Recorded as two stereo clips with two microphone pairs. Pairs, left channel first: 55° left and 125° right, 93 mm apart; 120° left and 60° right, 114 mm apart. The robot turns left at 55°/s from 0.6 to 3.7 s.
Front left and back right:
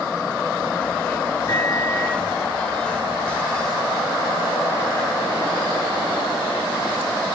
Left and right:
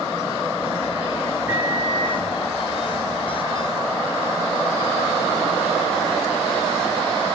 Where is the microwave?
10° left, 1.9 m; by 2.2 s 30° right, 1.9 m.